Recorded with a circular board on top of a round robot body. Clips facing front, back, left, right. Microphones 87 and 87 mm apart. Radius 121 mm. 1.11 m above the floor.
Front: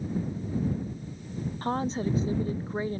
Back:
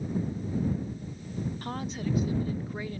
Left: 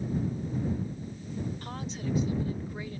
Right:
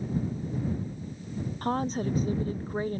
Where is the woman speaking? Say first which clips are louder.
Front 10 dB, right 8 dB; 50° right.